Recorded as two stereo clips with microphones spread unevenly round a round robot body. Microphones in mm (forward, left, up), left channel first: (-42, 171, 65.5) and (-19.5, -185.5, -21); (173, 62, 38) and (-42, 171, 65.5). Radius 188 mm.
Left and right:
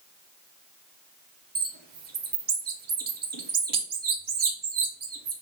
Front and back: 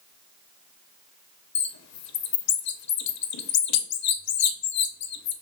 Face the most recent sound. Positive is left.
turn(degrees=-20)